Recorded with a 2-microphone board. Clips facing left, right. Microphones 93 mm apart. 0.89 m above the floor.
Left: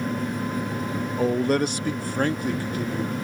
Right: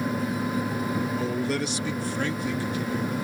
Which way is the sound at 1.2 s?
45° left (ahead or behind).